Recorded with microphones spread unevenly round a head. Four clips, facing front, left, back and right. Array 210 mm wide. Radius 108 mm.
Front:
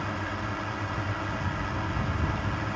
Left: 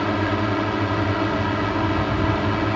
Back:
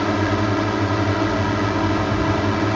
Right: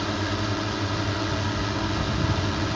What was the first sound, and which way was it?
A drone, 155° left.